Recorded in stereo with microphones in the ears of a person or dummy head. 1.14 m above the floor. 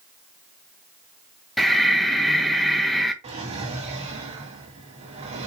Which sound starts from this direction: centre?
Breathing, at 1.6 s.